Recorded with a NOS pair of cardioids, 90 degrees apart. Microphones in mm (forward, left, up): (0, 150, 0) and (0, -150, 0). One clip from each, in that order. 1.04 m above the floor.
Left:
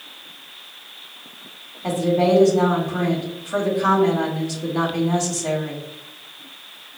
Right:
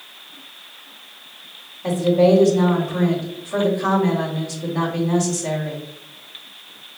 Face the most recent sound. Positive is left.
turn(degrees=-5)